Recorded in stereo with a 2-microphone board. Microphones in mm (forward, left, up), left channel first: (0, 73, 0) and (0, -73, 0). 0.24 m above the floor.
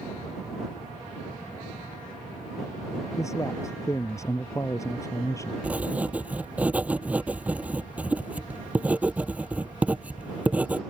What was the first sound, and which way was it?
A man speaking, 20° left (ahead or behind).